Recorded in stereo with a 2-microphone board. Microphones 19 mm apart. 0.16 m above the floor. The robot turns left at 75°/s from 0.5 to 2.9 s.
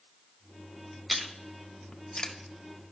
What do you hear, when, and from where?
1.1 s chewing: centre (ahead or behind), 0.9 m; by 2.3 s 35° left (ahead or behind), 0.9 m